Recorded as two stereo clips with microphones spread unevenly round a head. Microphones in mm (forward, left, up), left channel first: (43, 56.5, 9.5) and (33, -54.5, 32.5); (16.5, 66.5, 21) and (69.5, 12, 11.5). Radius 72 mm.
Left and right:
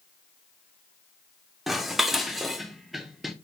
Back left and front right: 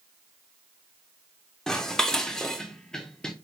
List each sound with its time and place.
1.7 s dishes clattering: 160° right, 0.5 m